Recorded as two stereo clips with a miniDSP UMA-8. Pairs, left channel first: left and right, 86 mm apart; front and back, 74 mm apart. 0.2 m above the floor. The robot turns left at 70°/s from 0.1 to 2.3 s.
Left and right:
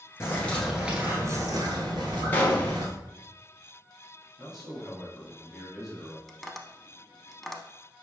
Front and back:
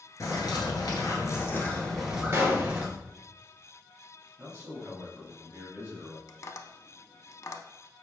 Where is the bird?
35° left, 1.1 m; by 2.9 s 110° right, 1.1 m.